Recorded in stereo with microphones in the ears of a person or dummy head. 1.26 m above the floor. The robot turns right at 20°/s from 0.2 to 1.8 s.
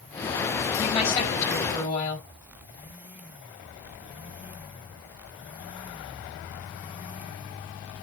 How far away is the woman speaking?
About 5.5 m.